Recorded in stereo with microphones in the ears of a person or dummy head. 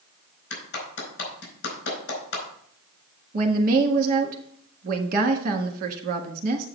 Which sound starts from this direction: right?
A woman speaking, at 3.3 s.